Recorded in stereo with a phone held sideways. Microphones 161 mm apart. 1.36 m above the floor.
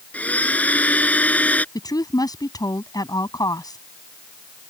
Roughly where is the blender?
Centre.